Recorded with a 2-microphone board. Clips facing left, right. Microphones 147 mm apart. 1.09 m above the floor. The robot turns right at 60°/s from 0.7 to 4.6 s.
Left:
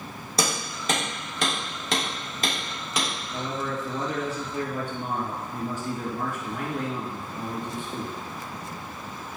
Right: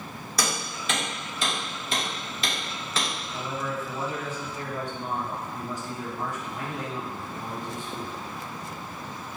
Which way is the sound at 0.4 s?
30° left (ahead or behind).